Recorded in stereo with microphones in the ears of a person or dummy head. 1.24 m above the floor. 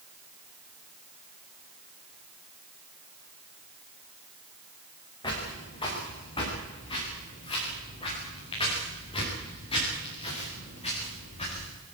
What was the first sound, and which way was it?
Footsteps, 20° left (ahead or behind).